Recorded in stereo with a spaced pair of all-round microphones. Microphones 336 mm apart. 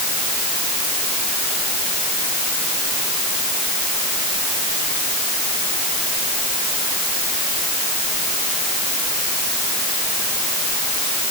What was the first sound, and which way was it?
Only background noise.